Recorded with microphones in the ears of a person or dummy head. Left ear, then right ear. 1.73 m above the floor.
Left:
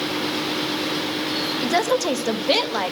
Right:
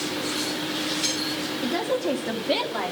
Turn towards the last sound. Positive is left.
turn(degrees=75)  # may be behind; listen again after turning